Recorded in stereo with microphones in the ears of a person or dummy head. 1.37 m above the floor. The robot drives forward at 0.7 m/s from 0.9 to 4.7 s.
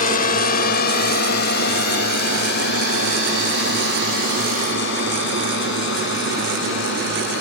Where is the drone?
40° left (ahead or behind); by 7.4 s 65° left (ahead or behind).